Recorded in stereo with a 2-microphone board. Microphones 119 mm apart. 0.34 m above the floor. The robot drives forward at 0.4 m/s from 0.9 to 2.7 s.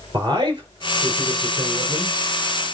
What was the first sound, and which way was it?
A man speaking, 40° right (ahead or behind).